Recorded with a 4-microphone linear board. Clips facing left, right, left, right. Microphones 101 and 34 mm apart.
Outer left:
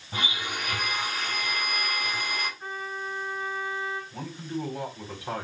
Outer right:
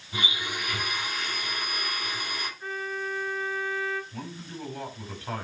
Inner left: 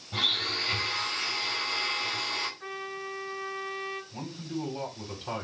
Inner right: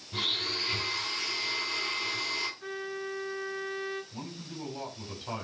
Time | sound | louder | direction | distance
0.1 | a blender | outer left 1 dB, inner left 3 dB | 40° left (ahead or behind) | 4.5 m
2.6 | a trumpet | outer right 2 dB, even | 20° left (ahead or behind) | 5.5 m
4.1 | a man speaking | outer left 5 dB, inner left 5 dB | 15° left (ahead or behind) | 3 m